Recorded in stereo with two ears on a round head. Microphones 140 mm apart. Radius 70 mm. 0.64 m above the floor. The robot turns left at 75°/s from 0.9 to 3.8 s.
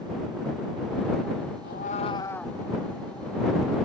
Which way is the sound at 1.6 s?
65° left.